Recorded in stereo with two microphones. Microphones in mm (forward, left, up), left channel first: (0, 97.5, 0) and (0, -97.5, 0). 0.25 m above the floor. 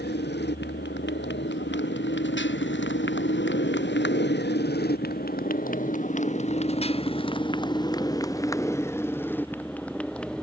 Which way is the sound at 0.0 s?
65° left (ahead or behind).